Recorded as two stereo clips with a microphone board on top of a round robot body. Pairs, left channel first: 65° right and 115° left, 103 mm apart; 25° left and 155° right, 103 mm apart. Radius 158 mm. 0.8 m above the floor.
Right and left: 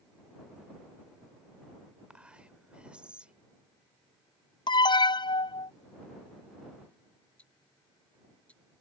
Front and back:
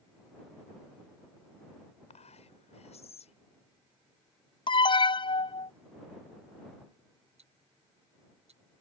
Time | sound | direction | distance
2.1 | whispering | 30° left | ?
4.7 | an alarm | 20° right | ?
7.4 | ticking | 145° right | ?